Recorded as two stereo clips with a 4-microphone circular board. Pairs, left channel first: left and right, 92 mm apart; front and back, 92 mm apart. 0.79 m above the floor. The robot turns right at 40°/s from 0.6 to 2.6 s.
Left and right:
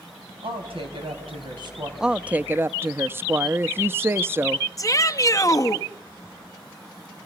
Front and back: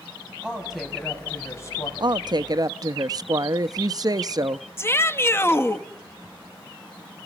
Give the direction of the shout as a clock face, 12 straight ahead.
10 o'clock.